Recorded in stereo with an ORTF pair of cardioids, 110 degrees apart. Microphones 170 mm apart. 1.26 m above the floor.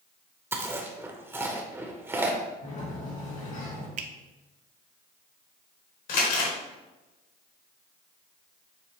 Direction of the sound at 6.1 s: 65° left.